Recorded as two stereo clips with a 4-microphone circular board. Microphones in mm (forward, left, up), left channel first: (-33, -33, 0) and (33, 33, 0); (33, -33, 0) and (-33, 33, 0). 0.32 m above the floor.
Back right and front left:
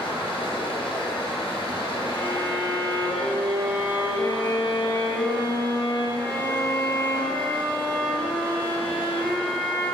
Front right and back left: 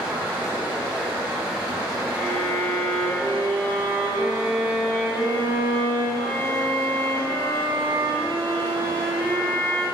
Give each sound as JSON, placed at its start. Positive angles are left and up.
{"t": 0.0, "sound": "running water", "azimuth_deg": -140, "distance_m": 0.9}
{"t": 2.1, "sound": "a violin", "azimuth_deg": -105, "distance_m": 1.7}